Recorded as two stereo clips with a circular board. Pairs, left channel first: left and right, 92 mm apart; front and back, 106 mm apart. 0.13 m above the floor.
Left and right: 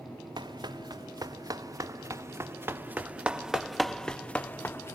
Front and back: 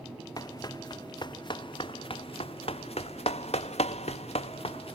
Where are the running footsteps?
55° right; by 5.0 s 25° left.